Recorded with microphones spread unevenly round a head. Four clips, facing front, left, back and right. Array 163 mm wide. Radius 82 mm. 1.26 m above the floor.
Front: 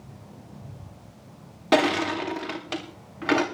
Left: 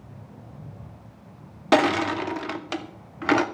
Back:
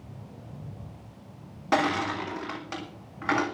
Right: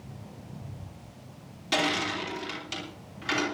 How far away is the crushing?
About 2.5 m.